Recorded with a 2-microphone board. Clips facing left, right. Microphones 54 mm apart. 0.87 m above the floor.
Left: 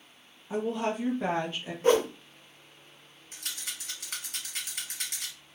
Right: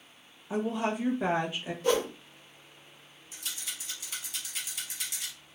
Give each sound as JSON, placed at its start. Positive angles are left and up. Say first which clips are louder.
{"t": 0.5, "sound": "a woman speaking", "louder": "even", "side_deg": -10, "distance_m": 0.9}
{"t": 1.8, "sound": "a whoosh", "louder": "left 4 dB", "side_deg": 40, "distance_m": 0.5}
{"t": 3.3, "sound": "a rattle", "louder": "left 1 dB", "side_deg": 55, "distance_m": 1.1}